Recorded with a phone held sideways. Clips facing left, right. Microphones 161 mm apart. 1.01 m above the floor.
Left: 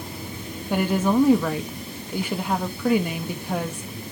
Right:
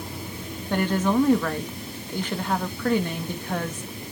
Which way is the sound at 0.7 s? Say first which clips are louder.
Left 1 dB; 10° left (ahead or behind).